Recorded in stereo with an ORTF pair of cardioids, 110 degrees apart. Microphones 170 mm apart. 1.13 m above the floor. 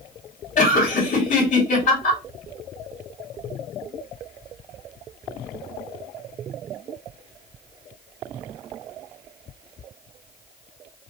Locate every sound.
0.6 s laughter: 45° left, 2 m